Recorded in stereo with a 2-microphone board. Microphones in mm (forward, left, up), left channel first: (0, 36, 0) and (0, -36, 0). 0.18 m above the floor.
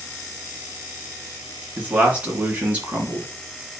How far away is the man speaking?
About 2.5 m.